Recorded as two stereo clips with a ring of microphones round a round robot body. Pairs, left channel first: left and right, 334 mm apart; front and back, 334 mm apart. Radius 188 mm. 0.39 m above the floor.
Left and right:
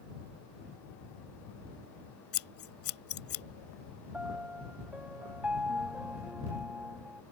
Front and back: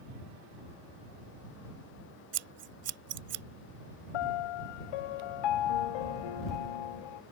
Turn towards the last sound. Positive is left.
turn(degrees=-5)